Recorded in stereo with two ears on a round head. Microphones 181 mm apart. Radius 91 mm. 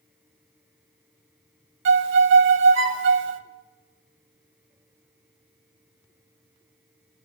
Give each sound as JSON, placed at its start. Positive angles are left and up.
{"t": 1.9, "sound": "a violin", "side_deg": -65, "distance_m": 0.6}